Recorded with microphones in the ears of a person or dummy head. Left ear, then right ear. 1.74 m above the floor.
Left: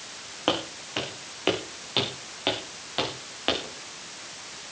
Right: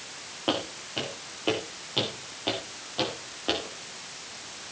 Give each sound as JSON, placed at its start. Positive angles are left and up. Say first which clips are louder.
{"t": 0.5, "sound": "footsteps", "louder": "left 2 dB", "side_deg": 55, "distance_m": 6.0}